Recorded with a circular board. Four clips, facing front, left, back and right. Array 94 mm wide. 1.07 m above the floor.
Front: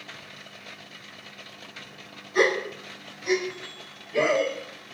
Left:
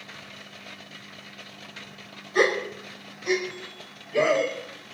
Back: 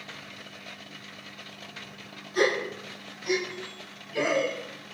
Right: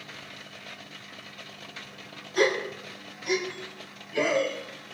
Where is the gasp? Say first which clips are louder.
Left 2 dB, front 2 dB; 60° left, 6 m.